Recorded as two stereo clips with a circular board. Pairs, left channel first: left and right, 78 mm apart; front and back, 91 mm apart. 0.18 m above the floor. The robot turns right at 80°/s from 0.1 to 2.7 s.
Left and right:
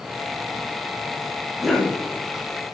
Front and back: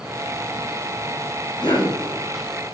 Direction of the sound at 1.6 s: 5° left.